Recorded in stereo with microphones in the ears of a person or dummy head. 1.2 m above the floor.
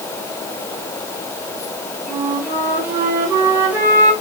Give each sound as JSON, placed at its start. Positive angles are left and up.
{"t": 2.1, "sound": "a flute", "side_deg": -10, "distance_m": 1.9}